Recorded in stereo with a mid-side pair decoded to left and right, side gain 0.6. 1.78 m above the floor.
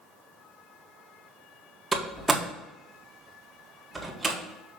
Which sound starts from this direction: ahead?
A door slam, at 1.9 s.